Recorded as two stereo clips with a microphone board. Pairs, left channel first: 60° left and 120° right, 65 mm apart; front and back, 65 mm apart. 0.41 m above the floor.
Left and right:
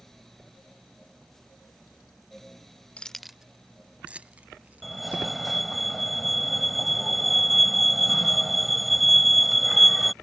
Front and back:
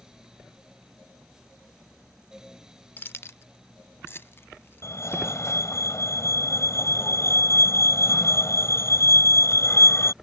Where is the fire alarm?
30° right.